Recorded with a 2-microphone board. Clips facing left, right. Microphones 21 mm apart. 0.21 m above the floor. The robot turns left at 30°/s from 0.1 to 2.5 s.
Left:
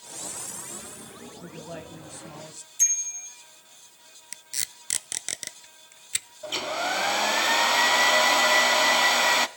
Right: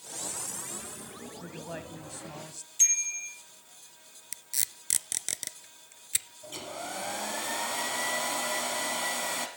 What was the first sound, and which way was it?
A man speaking, 10° right (ahead or behind).